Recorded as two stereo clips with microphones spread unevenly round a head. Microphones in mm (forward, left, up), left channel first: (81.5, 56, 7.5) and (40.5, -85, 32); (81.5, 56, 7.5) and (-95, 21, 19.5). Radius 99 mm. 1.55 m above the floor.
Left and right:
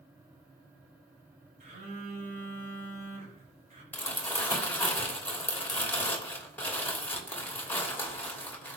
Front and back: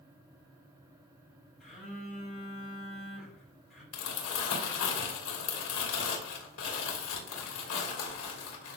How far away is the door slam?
No door slam in this recording.